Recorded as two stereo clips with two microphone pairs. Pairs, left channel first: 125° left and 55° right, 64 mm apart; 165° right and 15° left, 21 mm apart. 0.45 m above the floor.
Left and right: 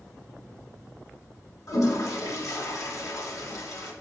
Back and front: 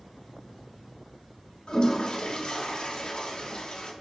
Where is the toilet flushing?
150° left, 0.8 m.